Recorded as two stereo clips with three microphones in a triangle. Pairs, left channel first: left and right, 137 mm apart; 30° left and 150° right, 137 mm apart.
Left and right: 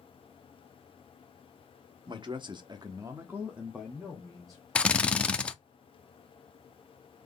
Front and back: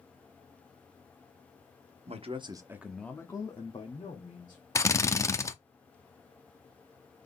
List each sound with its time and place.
2.1 s a man speaking: 135° right, 1.0 m; by 4.6 s 5° left, 1.7 m
4.8 s a drill: 25° left, 0.5 m